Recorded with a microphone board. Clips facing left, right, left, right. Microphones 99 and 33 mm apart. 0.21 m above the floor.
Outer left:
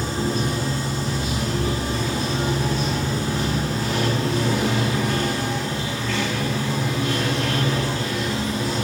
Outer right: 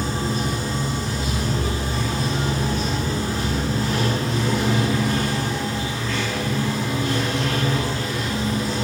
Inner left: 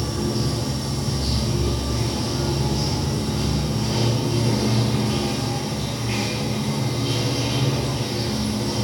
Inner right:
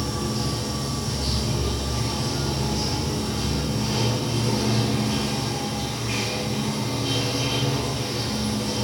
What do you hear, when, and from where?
0.0 s running water: 25° left (ahead or behind), 1.2 m